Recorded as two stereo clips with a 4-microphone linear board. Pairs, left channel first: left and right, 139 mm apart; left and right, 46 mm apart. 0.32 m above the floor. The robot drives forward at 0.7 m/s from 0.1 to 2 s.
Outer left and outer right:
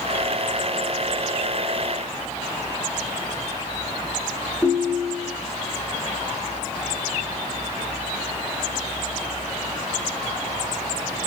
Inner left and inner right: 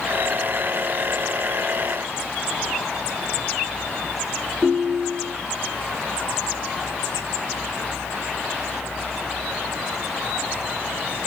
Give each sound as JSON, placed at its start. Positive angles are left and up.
{"t": 4.6, "sound": "a ringtone", "side_deg": 10, "distance_m": 2.5}